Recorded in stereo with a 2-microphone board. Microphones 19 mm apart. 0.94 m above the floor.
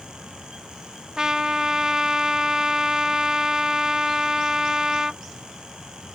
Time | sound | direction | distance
1.2 | a trumpet | 35° right (ahead or behind) | ?